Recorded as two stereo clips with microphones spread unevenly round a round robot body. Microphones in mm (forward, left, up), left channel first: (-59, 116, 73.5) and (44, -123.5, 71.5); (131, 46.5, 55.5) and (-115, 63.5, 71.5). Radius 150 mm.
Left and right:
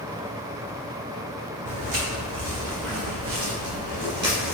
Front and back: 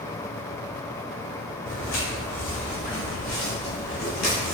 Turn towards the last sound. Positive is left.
turn(degrees=20)